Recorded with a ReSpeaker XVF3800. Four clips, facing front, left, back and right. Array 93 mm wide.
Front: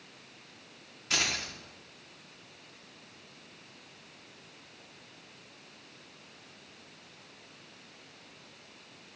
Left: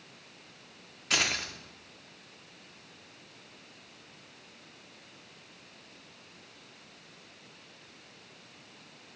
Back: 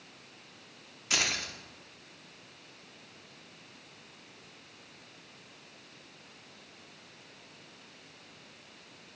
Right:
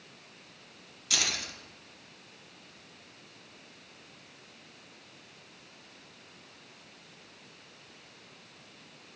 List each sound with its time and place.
1.1 s keys jangling: 100° left, 0.6 m